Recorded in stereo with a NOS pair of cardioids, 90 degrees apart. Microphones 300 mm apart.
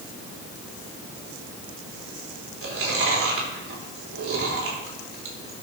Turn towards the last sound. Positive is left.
turn(degrees=-45)